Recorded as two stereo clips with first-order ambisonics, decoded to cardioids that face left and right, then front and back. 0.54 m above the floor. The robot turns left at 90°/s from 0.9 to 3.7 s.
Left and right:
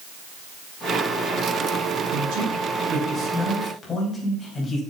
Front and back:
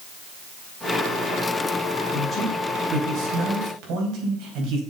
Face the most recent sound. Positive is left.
turn(degrees=165)